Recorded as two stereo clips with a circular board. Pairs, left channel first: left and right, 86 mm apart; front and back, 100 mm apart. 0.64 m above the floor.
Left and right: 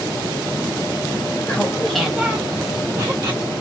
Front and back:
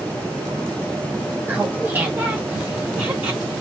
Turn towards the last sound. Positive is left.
turn(degrees=-115)